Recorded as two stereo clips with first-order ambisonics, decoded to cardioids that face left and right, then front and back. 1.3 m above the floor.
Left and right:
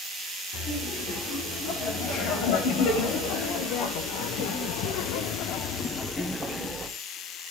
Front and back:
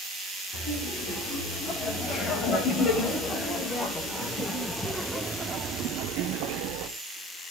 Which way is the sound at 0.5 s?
55° left.